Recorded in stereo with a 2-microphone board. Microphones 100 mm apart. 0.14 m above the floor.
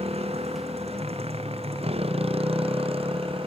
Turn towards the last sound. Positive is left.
turn(degrees=-65)  # may be behind; listen again after turning